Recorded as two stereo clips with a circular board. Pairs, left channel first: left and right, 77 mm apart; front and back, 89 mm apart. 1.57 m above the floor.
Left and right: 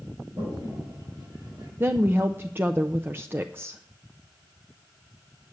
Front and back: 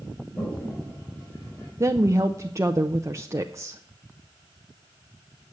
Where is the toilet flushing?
70° right, 4.5 m.